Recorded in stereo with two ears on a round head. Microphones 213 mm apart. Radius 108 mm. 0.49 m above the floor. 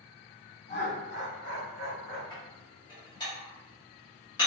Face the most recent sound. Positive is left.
turn(degrees=20)  # may be behind; listen again after turning